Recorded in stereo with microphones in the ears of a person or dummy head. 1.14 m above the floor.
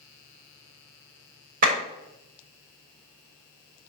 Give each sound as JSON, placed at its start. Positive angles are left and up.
{"t": 1.6, "sound": "a clap", "side_deg": -45, "distance_m": 3.0}